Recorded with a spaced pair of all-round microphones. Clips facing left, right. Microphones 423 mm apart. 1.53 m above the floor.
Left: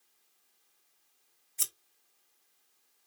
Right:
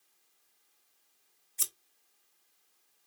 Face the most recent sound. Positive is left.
turn(degrees=-5)  # may be behind; listen again after turning